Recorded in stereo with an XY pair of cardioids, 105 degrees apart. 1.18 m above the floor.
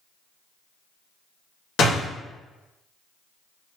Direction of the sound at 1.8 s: 65° left.